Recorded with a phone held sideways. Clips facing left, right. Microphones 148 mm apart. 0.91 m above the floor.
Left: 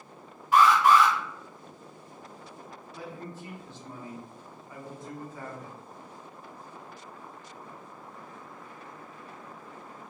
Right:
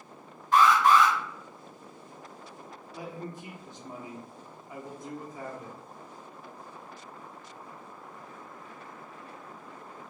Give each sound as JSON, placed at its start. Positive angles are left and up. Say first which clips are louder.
{"t": 0.5, "sound": "an alarm", "louder": "left 1 dB", "side_deg": 10, "distance_m": 1.1}
{"t": 2.9, "sound": "a man speaking", "louder": "right 2 dB", "side_deg": -15, "distance_m": 0.5}